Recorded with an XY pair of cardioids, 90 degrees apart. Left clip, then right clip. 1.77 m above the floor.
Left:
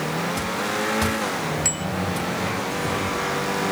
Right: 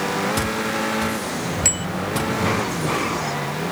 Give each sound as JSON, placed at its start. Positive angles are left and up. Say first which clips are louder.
{"t": 1.6, "sound": "a bicycle bell", "louder": "right 3 dB", "azimuth_deg": -35}